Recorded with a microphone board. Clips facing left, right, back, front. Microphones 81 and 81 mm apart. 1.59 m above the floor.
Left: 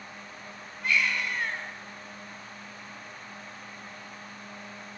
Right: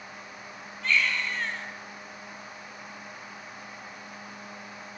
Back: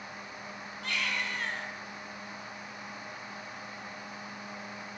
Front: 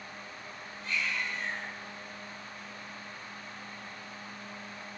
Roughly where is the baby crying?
Behind.